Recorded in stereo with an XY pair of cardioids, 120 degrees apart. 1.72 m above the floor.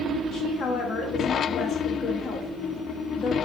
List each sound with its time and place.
0.3 s a woman speaking: 60° left, 0.6 m